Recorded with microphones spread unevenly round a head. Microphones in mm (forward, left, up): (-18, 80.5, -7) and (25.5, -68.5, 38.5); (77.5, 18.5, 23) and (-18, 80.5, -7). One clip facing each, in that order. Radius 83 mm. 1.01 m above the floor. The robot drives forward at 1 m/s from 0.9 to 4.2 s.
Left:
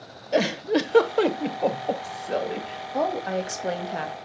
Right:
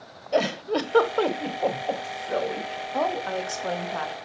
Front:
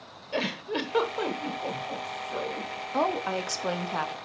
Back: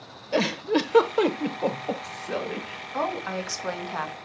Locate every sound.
0.3 s a giggle: 165° right, 0.7 m; by 2.8 s 175° right, 2.5 m
2.9 s a woman speaking: 30° left, 2.5 m; by 4.2 s 60° left, 1.5 m